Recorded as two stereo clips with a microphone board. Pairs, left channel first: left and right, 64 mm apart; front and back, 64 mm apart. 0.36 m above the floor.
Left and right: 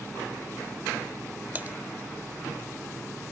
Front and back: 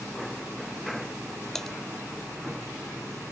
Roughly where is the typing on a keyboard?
Right.